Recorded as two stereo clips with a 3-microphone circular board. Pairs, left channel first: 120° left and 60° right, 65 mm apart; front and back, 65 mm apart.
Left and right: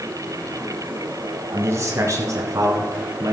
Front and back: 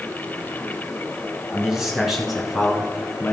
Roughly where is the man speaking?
Right.